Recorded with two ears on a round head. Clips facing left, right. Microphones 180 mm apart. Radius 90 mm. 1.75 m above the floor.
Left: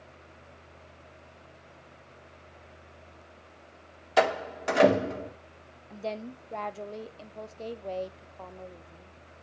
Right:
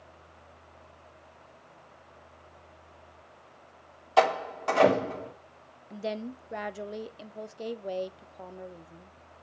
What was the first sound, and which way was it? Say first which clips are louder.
A door slam: right 1 dB; 20° left (ahead or behind).